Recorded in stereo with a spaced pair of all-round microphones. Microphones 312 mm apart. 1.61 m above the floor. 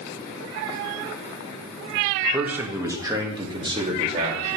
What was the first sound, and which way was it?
A man speaking, centre (ahead or behind).